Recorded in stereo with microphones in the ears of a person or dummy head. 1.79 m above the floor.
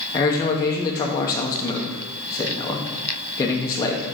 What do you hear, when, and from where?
0.1 s a man speaking: 15° left (ahead or behind), 1.0 m